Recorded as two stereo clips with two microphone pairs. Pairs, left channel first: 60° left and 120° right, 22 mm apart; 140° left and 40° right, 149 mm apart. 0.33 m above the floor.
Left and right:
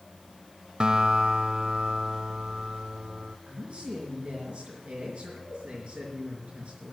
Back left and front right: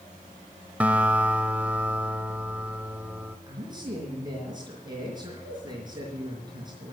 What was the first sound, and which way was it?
A guitar, 120° right.